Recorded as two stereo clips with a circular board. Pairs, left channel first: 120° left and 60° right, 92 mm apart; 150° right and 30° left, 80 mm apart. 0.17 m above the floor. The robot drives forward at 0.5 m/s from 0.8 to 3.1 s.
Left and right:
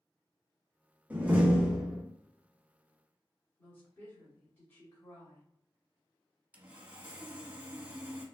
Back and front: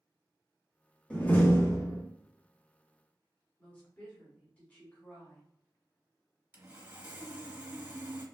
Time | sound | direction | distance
1.1 | a door slam | 100° right | 0.8 m
3.6 | a woman speaking | 160° left | 1.1 m
6.5 | sawing | 5° right | 0.8 m